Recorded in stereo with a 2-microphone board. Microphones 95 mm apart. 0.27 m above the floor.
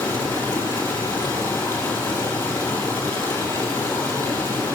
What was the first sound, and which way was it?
Running water, 25° left (ahead or behind).